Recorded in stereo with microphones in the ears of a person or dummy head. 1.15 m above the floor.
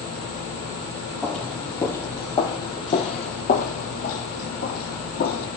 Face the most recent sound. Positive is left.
turn(degrees=65)  # may be behind; listen again after turning